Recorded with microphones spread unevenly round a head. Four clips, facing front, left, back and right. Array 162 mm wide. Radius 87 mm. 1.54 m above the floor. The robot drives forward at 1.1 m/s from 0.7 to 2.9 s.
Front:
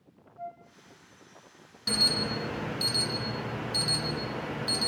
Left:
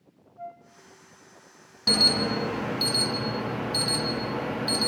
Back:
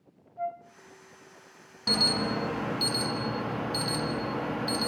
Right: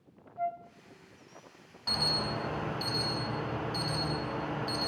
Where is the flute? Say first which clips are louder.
Right 7 dB, back 7 dB; 140° right, 0.8 m.